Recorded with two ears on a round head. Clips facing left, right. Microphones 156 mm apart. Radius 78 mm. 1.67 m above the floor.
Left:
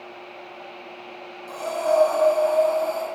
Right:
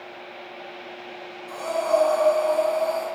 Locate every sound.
1.5 s breathing: 80° left, 1.4 m